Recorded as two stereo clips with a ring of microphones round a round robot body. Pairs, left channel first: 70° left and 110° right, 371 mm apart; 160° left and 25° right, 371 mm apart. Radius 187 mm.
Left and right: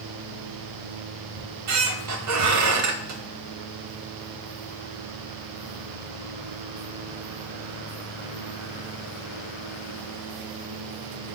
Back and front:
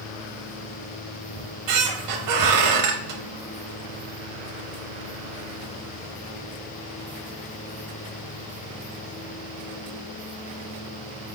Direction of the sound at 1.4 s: 65° right.